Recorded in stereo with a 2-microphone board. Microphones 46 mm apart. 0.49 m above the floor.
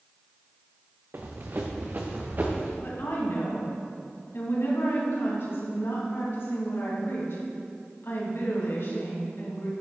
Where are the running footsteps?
50° right (ahead or behind), 1.6 m; by 2.7 s 40° right (ahead or behind), 2.5 m.